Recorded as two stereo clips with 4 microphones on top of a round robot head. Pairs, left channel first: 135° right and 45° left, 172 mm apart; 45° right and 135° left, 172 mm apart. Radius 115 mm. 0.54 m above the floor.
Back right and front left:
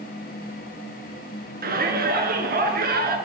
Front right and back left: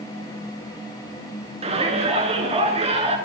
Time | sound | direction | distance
1.6 | a shout | 80° left | 7 m